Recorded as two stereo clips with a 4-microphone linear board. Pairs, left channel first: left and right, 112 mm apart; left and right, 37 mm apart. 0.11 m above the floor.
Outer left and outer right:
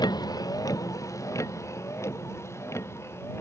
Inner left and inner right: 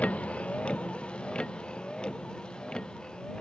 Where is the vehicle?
35° left (ahead or behind); by 3.4 s 20° left (ahead or behind).